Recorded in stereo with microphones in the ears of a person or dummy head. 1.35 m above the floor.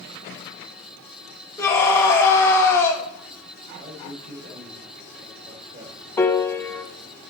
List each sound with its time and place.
1.6 s a scream: 10° left (ahead or behind), 1.8 m
3.7 s a man speaking: 45° right (ahead or behind), 2.5 m
6.2 s a piano: 15° left (ahead or behind), 0.7 m